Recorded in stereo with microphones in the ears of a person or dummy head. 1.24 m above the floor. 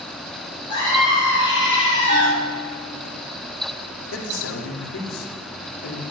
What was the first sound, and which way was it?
A scream, 25° left (ahead or behind).